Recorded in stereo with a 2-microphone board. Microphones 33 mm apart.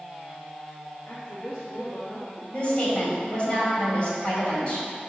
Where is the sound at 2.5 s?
35° left (ahead or behind), 2.5 m.